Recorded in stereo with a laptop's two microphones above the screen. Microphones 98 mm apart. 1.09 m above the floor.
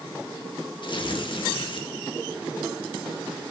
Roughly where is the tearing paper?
Left.